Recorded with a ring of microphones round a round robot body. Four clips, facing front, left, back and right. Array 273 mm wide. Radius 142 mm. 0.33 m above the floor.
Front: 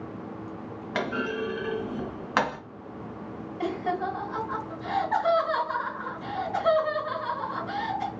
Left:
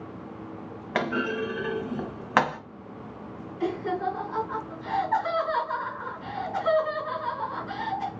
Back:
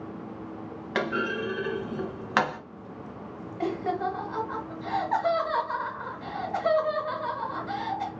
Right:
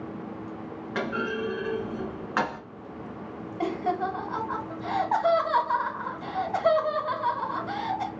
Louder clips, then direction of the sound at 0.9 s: Left 2 dB, back 1 dB; 100° left.